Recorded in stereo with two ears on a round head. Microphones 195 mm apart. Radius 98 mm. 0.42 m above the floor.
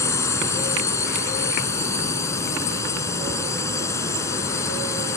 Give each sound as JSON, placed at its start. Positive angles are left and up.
{"t": 0.0, "sound": "a drone", "side_deg": 15}